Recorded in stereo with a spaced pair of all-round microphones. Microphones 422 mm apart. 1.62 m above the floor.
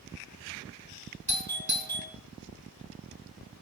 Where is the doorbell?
65° right (ahead or behind), 4 m.